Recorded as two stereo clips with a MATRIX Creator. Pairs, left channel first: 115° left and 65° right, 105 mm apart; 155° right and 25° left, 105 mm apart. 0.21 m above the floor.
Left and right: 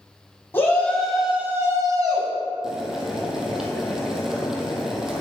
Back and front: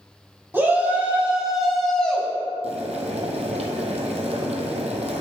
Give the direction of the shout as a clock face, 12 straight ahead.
10 o'clock.